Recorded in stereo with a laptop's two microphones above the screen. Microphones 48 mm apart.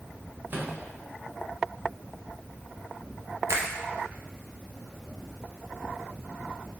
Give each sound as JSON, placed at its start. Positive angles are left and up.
{"t": 0.5, "sound": "a microwave", "side_deg": -45, "distance_m": 0.5}
{"t": 3.5, "sound": "a finger snap", "side_deg": -80, "distance_m": 0.6}